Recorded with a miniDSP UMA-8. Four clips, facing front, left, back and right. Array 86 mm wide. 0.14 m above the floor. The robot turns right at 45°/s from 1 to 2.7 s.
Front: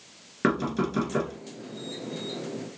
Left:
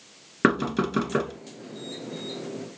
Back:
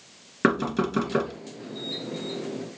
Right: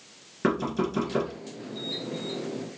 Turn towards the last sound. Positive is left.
turn(degrees=-170)